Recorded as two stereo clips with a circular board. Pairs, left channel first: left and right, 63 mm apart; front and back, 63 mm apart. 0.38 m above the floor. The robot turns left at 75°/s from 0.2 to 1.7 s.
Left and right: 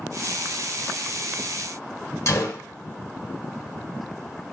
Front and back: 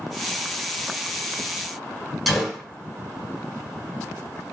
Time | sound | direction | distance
2.3 | a gunshot | 90° left | 1.2 m